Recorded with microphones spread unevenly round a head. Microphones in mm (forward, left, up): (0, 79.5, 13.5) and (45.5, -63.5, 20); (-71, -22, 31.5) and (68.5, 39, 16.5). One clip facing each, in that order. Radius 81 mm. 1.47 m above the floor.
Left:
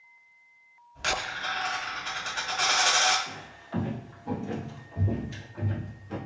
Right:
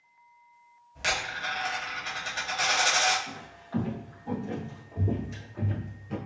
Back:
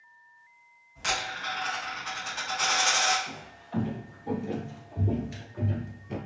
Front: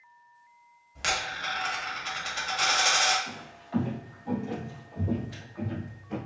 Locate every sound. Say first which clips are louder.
0.9 s a dropped coin: left 1 dB, even; 5° left, 1.3 m
3.3 s footsteps: right 1 dB, front 2 dB; 90° left, 1.5 m; by 6.2 s 150° right, 1.9 m